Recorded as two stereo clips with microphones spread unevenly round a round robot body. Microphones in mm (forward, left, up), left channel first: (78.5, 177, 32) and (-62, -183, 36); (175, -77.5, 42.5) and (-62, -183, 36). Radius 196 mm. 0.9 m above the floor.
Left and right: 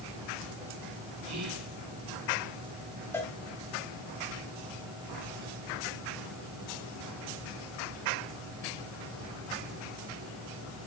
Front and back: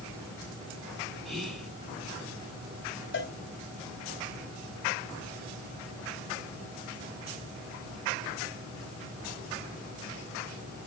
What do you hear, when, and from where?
1.2 s whispering: 65° right, 8.5 m
3.1 s a cowbell: 15° right, 4 m